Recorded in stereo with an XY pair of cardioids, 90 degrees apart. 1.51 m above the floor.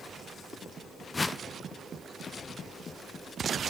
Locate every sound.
1.1 s a whoosh: 30° left, 0.5 m